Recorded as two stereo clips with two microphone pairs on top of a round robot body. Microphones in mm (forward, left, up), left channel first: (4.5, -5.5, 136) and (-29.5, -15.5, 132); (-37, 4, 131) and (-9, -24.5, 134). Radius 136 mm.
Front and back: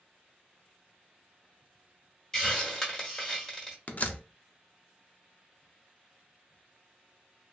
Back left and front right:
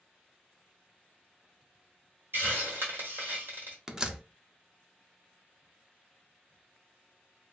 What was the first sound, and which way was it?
A hiss, 60° right.